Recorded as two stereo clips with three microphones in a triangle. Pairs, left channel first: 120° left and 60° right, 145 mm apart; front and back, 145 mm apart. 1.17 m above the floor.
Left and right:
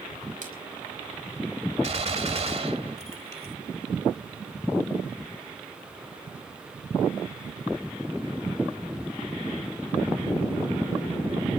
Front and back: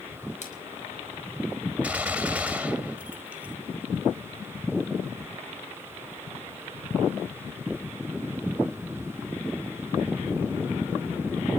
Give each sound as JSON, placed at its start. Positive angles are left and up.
{"t": 0.4, "sound": "a splash", "azimuth_deg": -35, "distance_m": 5.5}
{"t": 1.8, "sound": "a gunshot", "azimuth_deg": -100, "distance_m": 2.0}